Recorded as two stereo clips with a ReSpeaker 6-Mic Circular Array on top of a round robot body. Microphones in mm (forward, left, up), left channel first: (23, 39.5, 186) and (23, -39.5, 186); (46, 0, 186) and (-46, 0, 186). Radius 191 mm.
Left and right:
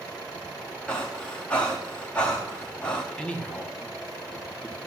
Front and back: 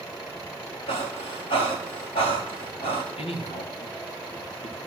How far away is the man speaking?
About 1.7 m.